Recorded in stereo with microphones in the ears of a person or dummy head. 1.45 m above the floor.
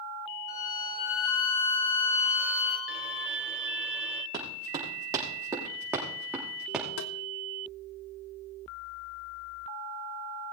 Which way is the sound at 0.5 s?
35° left (ahead or behind).